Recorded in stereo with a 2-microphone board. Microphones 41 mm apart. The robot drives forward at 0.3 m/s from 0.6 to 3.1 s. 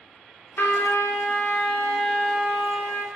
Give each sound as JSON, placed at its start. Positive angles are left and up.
{"t": 0.6, "sound": "a trumpet", "side_deg": 70, "distance_m": 0.6}